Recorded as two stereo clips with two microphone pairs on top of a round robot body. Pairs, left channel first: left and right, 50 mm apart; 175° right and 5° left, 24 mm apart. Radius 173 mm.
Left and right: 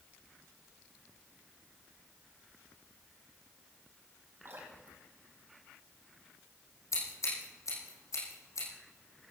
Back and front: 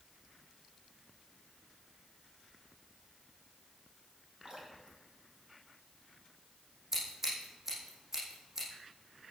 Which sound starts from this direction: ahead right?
Dripping, at 4.5 s.